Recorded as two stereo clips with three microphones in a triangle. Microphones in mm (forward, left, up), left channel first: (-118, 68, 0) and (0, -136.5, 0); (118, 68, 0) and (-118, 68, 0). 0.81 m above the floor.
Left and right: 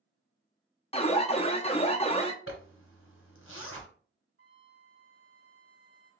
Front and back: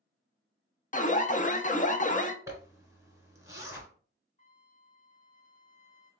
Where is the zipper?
105° left, 1.5 m.